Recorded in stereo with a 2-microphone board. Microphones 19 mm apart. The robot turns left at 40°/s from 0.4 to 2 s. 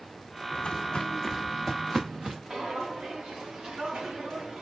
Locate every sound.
0.5 s footsteps: 75° left (ahead or behind), 1.0 m; by 2.4 s 55° right (ahead or behind), 1.3 m
2.5 s footsteps: 50° right (ahead or behind), 1.2 m; by 4.6 s 70° right (ahead or behind), 2.5 m